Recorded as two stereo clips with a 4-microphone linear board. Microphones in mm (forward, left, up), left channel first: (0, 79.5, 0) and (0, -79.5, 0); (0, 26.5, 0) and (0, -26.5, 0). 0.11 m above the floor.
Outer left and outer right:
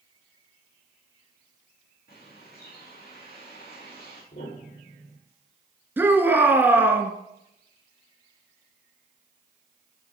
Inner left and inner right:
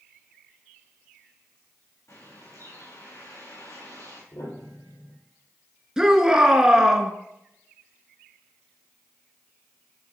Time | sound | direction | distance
2.1 | a bird | 70° left (ahead or behind) | 5 m
4.3 | a piano | 65° left (ahead or behind) | 3.5 m
6.0 | a shout | 10° right (ahead or behind) | 1.2 m